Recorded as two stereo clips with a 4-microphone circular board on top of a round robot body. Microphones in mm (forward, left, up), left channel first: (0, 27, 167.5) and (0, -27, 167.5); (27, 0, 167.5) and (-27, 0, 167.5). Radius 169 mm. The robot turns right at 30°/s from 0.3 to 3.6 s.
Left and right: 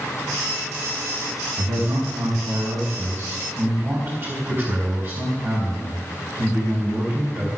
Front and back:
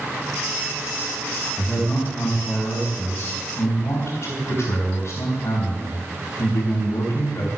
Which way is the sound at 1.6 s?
100° right.